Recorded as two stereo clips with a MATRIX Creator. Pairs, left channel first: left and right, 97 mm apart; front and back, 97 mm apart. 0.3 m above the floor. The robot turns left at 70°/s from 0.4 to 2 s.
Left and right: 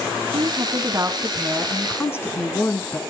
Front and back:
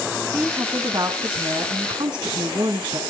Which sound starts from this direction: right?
A woman speaking, at 0.3 s.